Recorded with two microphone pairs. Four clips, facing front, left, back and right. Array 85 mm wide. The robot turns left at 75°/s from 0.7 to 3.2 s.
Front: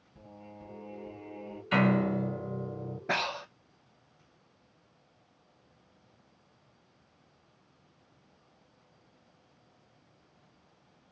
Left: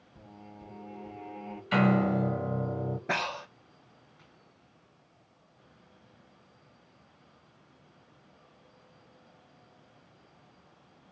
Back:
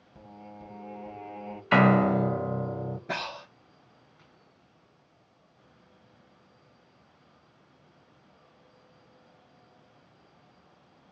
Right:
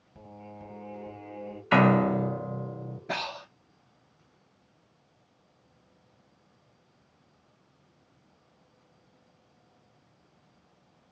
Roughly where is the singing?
Behind right.